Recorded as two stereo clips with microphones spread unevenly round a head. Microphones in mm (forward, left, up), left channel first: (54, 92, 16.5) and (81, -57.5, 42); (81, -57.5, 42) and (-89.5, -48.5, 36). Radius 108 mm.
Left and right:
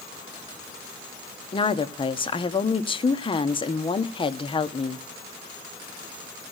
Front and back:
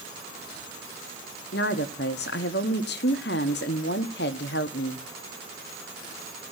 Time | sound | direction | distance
1.5 | a woman speaking | 40° left | 1.1 m